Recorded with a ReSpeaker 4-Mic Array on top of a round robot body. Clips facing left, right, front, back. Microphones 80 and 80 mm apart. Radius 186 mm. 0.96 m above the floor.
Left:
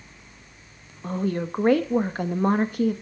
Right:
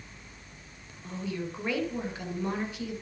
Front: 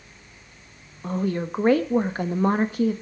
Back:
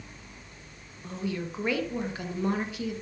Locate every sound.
1.0 s a woman speaking: 50° left, 1.3 m